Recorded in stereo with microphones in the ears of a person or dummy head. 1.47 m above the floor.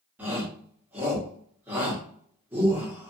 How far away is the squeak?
No squeak in this recording.